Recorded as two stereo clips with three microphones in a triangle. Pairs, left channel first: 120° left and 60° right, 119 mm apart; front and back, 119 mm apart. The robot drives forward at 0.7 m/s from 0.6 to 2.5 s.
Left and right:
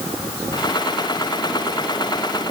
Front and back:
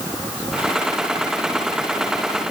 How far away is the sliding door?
No sliding door in this recording.